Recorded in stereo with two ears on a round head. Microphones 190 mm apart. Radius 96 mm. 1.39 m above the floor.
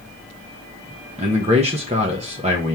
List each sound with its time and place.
1.2 s a man speaking: 35° right (ahead or behind), 0.8 m